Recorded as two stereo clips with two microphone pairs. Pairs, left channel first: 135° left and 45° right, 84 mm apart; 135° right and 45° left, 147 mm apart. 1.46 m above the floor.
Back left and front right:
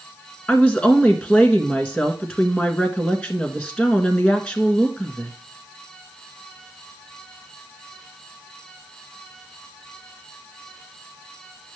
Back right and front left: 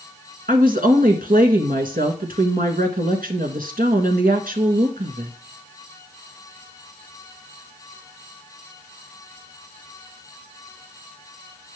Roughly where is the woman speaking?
Ahead left.